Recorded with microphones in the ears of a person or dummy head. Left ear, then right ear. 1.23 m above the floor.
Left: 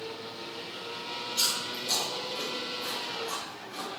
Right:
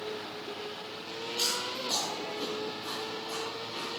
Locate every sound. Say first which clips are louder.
1.4 s chewing: left 1 dB; 70° left (ahead or behind), 1.3 m